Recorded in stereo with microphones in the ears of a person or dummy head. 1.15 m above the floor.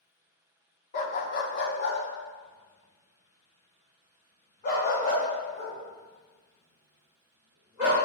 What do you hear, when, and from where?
0.9 s a dog barking: 50° left (ahead or behind), 0.9 m; by 8.0 s 40° left (ahead or behind), 5.5 m